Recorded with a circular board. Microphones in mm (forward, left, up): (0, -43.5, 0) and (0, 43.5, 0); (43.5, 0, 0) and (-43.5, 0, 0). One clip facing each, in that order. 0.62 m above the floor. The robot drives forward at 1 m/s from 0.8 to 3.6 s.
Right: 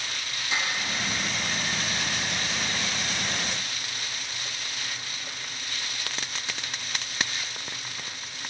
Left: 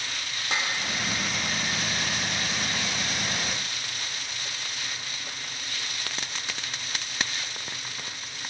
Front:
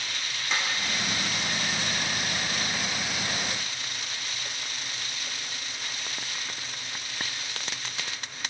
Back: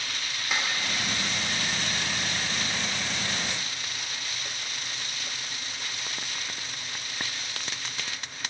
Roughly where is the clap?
Left.